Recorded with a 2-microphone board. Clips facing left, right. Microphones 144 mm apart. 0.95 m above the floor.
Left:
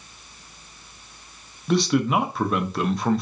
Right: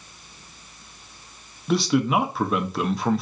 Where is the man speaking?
Centre (ahead or behind), 0.5 m.